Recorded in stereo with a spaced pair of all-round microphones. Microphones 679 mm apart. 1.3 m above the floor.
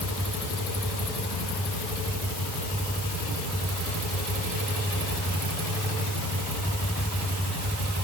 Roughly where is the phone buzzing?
No phone buzzing in this recording.